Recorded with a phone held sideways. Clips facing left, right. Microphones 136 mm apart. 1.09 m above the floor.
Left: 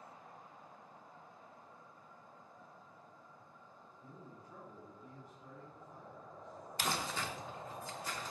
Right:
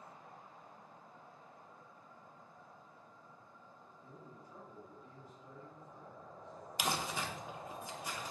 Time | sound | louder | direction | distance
4.0 | a man speaking | left 1 dB | 85° left | 3 m
6.8 | crumpling | right 1 dB | 15° right (ahead or behind) | 0.7 m